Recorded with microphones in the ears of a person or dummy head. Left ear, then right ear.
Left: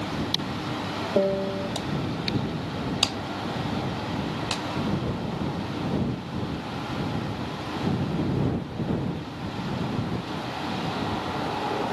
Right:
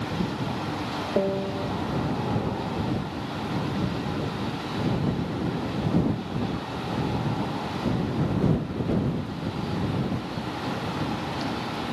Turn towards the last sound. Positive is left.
turn(degrees=15)  # may be behind; listen again after turning